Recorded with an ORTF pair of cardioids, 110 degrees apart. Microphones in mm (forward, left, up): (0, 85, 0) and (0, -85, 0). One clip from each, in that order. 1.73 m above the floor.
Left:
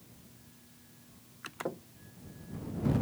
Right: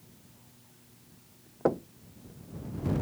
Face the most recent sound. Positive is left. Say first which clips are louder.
# right 13 dB
turn(degrees=-60)